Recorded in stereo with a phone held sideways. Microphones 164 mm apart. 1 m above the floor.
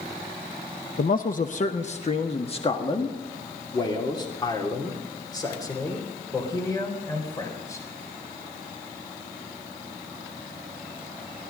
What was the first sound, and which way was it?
A man speaking, 60° left (ahead or behind).